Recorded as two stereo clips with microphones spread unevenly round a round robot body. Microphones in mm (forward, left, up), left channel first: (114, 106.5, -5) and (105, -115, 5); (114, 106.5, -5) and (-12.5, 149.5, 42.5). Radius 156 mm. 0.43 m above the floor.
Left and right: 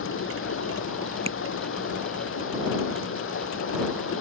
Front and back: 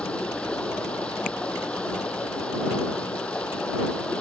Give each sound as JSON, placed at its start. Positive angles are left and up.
{"t": 0.0, "sound": "running water", "azimuth_deg": 65}
{"t": 1.3, "sound": "tapping", "azimuth_deg": -30}